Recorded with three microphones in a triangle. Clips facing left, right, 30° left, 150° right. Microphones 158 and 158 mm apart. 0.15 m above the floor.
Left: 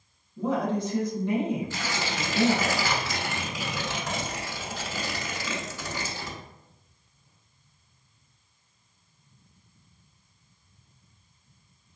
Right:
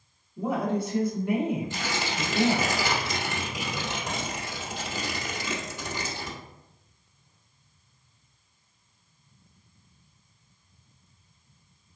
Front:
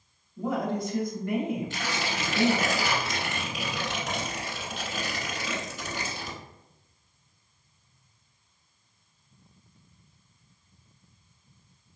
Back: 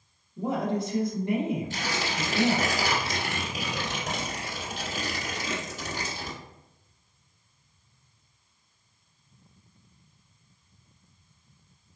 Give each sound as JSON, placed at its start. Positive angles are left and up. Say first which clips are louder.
{"t": 0.4, "sound": "a woman speaking", "louder": "left 1 dB, back 1 dB", "azimuth_deg": -160, "distance_m": 1.2}
{"t": 1.7, "sound": "tearing paper", "louder": "even, back 1 dB", "azimuth_deg": -150, "distance_m": 1.1}